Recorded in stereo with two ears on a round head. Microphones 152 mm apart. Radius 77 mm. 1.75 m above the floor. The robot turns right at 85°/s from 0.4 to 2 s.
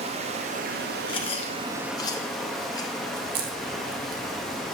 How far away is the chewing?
About 0.7 m.